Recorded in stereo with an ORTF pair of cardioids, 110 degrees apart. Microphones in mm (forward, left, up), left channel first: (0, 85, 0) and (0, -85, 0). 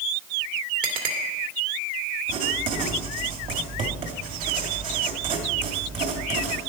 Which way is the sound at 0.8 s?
60° right.